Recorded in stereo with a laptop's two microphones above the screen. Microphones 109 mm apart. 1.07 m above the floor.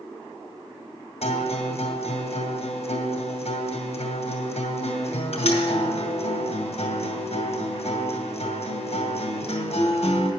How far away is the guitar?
About 2 m.